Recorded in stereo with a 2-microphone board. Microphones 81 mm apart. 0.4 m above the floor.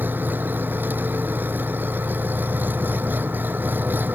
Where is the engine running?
25° right (ahead or behind).